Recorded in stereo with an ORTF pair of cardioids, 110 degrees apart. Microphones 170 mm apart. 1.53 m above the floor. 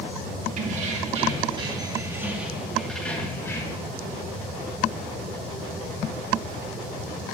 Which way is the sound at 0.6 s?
50° right.